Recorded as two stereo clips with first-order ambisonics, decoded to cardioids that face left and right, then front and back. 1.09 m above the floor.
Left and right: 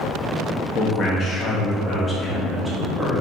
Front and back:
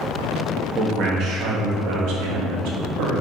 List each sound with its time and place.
0.8 s a man speaking: 140° left, 2.0 m; by 3.2 s 170° right, 2.5 m